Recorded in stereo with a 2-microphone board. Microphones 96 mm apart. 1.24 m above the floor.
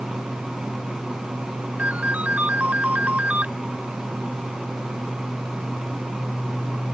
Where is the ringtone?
15° right (ahead or behind).